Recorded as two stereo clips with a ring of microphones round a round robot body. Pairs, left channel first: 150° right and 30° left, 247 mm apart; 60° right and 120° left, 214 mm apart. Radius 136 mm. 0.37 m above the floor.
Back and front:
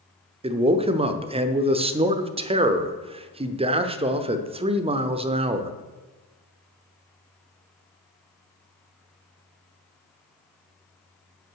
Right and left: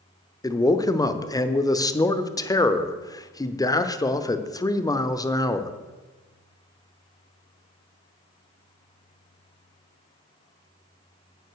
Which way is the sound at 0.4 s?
5° right.